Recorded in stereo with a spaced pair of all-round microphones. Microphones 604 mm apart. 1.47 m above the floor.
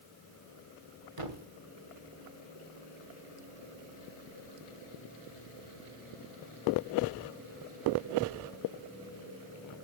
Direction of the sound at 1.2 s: 55° right (ahead or behind).